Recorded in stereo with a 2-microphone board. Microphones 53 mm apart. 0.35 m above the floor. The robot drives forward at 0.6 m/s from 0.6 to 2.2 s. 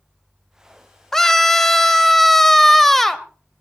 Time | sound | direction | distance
1.1 | a scream | 10° left (ahead or behind) | 0.8 m